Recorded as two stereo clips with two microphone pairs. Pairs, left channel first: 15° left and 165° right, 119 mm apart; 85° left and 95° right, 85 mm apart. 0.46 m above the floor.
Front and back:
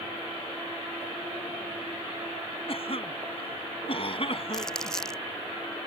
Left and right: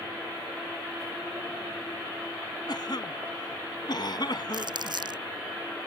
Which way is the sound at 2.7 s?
55° left.